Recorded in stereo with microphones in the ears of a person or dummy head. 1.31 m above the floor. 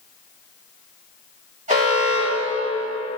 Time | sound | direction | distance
1.7 | an alarm | 30° right (ahead or behind) | 2 m